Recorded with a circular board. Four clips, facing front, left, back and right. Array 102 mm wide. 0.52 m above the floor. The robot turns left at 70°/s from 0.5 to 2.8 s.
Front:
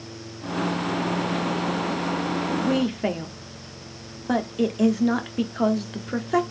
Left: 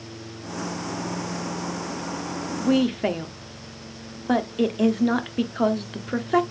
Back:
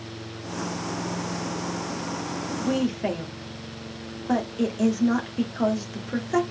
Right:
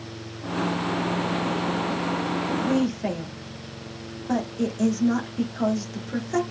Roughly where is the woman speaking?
Left.